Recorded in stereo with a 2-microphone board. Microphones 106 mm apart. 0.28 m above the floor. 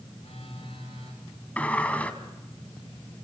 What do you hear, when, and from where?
0.2 s a phone buzzing: 60° left (ahead or behind), 9.5 m
1.6 s a sliding door: 15° left (ahead or behind), 1.8 m